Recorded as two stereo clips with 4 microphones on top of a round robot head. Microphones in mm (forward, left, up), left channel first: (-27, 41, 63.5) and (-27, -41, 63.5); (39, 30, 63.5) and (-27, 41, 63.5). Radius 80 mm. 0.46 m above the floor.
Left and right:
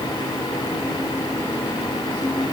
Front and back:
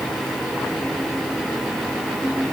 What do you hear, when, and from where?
Only background noise.